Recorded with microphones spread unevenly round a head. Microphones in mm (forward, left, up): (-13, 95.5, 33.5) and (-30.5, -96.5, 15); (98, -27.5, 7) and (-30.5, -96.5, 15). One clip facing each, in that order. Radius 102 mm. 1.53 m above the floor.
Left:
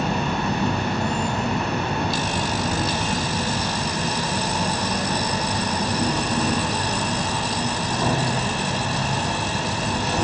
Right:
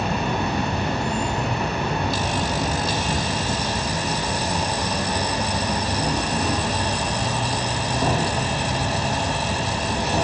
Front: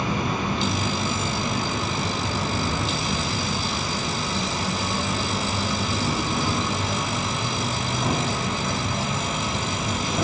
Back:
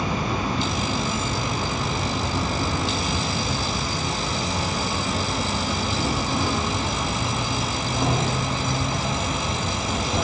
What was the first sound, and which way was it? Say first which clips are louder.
An insect: even, even; 145° right.